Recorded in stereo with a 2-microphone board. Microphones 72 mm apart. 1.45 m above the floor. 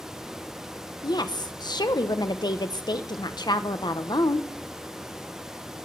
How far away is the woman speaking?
About 1.0 m.